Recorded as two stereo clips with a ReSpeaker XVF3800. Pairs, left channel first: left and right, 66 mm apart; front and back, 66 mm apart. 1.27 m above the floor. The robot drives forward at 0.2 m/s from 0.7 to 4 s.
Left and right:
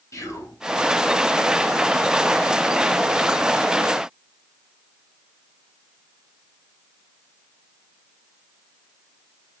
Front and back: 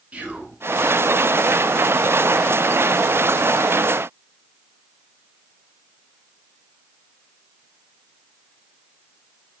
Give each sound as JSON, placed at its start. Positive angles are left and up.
{"t": 0.1, "sound": "whispering", "azimuth_deg": 115, "distance_m": 0.9}